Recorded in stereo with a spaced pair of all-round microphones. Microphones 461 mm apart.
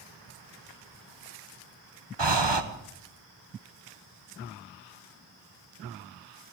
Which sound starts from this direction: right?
Breathing, at 2.2 s.